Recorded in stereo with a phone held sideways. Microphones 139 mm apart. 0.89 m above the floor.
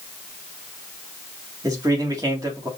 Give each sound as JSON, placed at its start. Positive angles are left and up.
{"t": 1.6, "sound": "a man speaking", "side_deg": -25, "distance_m": 1.6}